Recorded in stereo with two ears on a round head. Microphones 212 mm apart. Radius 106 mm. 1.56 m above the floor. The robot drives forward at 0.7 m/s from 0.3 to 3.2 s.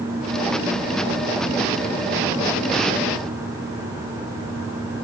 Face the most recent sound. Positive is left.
No sound to turn to.